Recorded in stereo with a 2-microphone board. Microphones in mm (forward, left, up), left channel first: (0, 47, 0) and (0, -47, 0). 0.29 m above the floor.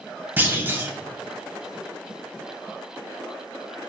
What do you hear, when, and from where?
0.4 s a clunk: 20° right (ahead or behind), 0.9 m